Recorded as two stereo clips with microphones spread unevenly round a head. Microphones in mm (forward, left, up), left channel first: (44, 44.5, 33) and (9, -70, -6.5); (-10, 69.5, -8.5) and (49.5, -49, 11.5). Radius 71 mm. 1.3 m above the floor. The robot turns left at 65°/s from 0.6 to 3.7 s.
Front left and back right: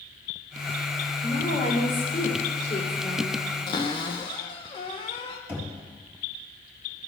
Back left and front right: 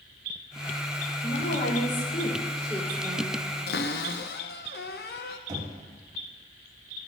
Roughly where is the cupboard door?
Behind left.